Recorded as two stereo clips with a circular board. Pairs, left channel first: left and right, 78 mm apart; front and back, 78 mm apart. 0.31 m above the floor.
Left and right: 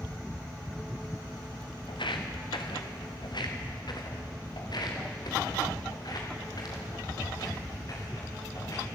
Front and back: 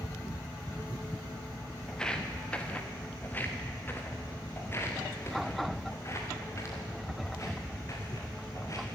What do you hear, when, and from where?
1.9 s footsteps: 80° left, 3.5 m; by 8.8 s 50° left, 10 m